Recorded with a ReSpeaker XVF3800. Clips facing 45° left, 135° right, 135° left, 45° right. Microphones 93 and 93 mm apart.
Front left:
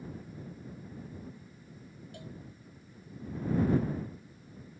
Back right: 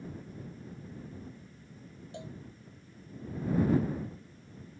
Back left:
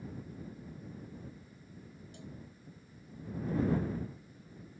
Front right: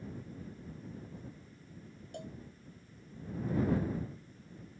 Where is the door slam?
I don't hear a door slam.